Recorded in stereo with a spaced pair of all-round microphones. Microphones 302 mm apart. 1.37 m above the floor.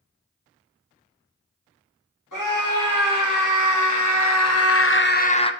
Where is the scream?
80° left, 2.5 m; by 5.5 s 15° left (ahead or behind), 0.8 m.